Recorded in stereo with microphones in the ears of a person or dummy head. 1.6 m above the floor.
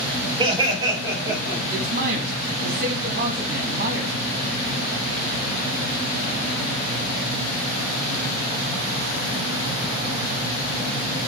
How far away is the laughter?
About 2.5 m.